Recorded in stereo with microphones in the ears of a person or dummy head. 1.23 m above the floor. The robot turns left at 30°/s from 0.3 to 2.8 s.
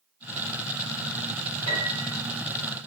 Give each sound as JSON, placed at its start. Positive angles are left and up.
{"t": 1.7, "sound": "a piano", "side_deg": -30, "distance_m": 1.4}